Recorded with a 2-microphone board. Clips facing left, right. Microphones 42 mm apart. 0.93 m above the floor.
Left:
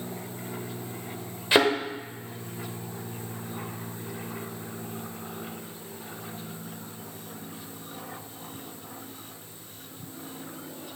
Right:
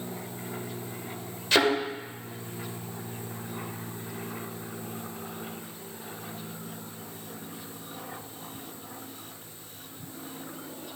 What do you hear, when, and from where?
1.5 s a thud: 20° left (ahead or behind), 1.4 m